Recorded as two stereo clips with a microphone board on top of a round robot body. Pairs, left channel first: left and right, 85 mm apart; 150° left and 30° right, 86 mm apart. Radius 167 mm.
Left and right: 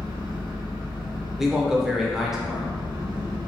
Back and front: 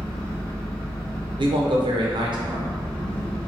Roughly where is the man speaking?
Ahead.